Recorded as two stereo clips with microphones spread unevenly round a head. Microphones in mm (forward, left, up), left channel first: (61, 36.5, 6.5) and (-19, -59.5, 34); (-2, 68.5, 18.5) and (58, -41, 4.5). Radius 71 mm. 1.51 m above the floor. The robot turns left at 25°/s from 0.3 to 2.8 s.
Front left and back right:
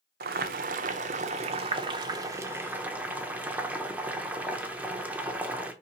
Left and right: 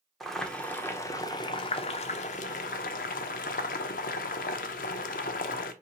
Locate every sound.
0.2 s boiling: 150° right, 0.5 m; by 5.7 s 145° left, 0.5 m